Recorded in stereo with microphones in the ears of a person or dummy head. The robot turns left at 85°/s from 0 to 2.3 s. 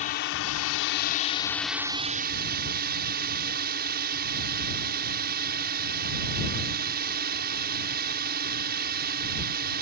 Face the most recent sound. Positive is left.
turn(degrees=-50)